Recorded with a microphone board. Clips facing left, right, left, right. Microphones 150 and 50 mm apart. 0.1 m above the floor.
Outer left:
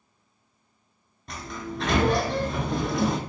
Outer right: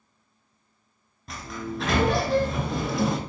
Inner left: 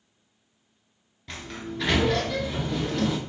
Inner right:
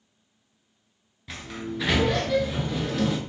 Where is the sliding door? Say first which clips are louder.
Outer right 1 dB, inner right 2 dB; centre (ahead or behind), 0.6 m.